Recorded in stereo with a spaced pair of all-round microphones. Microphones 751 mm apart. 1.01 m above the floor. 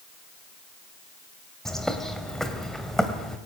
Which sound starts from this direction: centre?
A bird, at 1.6 s.